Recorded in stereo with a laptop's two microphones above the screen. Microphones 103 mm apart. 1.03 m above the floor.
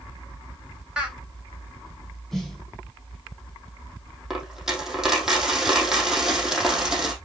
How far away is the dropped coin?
About 4 m.